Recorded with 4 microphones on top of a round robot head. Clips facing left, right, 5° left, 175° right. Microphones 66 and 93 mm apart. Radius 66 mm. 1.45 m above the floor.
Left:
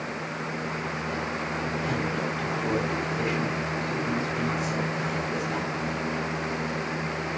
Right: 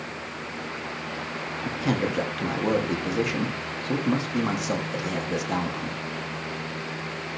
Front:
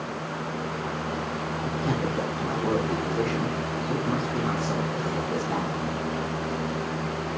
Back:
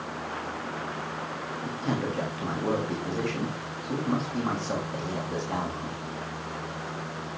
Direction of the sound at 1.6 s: 85° right.